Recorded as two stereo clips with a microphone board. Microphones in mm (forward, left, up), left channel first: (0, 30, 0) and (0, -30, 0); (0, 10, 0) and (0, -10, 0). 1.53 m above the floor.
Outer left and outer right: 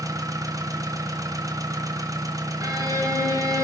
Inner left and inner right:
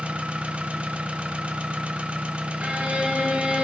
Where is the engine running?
75° right (ahead or behind), 1.0 m.